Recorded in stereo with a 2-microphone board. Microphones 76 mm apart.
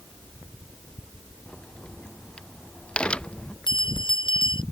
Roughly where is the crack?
Centre.